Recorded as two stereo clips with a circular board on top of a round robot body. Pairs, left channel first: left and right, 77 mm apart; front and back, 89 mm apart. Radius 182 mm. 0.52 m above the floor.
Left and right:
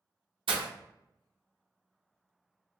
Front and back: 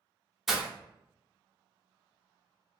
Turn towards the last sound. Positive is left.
turn(degrees=-95)